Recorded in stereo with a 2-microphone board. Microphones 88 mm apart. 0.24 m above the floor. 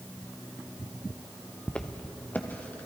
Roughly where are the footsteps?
Centre.